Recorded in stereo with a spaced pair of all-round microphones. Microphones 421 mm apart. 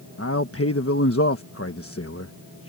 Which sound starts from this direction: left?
A man speaking, at 0.2 s.